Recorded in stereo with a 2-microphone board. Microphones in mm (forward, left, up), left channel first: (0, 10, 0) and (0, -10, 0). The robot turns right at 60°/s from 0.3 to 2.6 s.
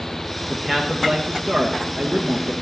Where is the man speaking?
Straight behind, 2.5 m; by 2.5 s 55° right, 2.5 m.